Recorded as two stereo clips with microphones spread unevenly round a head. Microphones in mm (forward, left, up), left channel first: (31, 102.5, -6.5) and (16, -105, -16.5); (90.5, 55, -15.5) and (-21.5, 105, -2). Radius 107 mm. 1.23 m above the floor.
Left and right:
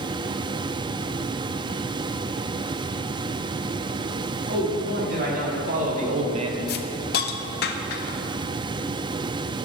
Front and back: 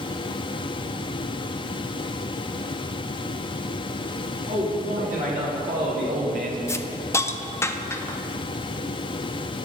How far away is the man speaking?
About 2 m.